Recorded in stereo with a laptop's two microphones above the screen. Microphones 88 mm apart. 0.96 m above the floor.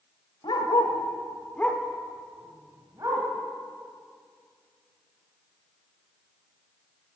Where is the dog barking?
60° left (ahead or behind), 1.3 m; by 3.3 s 40° right (ahead or behind), 2.0 m.